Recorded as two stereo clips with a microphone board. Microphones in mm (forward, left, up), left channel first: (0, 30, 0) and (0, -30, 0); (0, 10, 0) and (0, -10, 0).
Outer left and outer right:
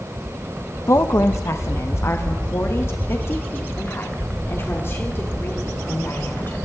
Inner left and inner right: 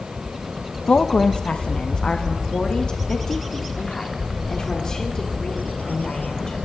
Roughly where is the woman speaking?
Left.